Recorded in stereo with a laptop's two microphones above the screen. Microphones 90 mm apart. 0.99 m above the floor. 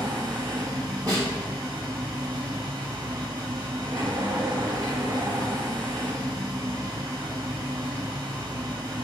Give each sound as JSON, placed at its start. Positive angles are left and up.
{"t": 0.0, "sound": "a machine running", "side_deg": -50, "distance_m": 1.3}
{"t": 1.1, "sound": "a snare drum", "side_deg": -40, "distance_m": 1.6}